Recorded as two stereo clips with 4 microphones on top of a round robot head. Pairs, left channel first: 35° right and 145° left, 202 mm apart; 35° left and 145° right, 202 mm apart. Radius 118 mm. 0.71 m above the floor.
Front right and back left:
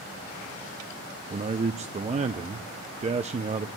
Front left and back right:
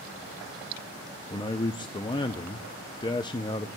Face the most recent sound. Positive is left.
turn(degrees=95)